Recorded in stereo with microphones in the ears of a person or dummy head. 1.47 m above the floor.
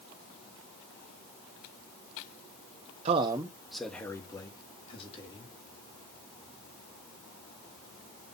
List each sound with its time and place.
3.0 s a man speaking: 35° right (ahead or behind), 0.7 m; by 5.5 s 35° left (ahead or behind), 2.0 m